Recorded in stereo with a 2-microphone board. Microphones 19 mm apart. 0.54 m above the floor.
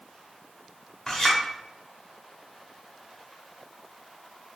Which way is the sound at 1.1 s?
25° left (ahead or behind).